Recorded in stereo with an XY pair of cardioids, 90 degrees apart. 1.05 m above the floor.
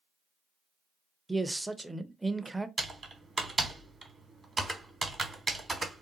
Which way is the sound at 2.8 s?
30° right.